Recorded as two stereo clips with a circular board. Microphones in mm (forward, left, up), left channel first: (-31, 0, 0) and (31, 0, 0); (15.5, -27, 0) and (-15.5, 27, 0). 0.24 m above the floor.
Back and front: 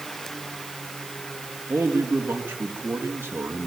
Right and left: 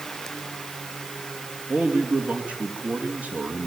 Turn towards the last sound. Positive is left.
turn(degrees=55)